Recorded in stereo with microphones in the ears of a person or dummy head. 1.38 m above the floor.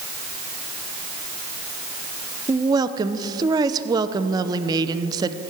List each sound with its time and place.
2.5 s a woman speaking: 15° right (ahead or behind), 0.8 m